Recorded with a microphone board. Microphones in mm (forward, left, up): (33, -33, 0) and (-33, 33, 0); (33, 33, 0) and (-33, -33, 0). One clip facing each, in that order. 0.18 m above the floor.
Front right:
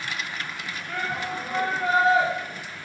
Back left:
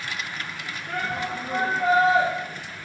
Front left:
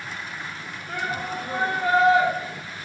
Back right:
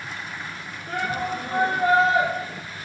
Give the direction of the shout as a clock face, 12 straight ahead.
6 o'clock.